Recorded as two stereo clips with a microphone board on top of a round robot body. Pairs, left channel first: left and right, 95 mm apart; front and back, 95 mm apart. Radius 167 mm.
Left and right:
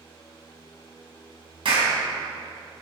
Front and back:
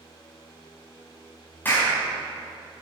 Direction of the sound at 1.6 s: 70° right.